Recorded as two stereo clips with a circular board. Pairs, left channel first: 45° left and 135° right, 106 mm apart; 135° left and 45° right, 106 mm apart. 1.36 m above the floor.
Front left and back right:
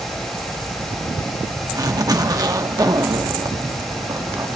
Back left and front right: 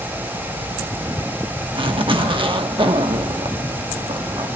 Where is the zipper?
80° right, 1.1 m.